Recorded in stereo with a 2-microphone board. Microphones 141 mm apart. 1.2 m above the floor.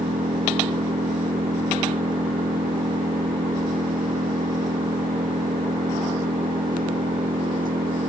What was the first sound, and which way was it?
An engine running, 80° right.